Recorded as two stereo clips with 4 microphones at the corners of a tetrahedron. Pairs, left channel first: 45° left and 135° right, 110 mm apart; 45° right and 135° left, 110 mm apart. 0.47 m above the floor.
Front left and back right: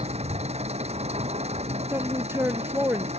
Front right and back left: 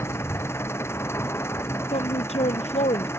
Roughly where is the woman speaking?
Ahead right.